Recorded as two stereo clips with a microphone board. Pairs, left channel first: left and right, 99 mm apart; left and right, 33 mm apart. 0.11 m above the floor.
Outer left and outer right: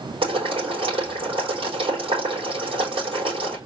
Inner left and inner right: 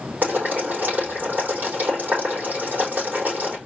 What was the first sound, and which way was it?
Boiling, 70° right (ahead or behind).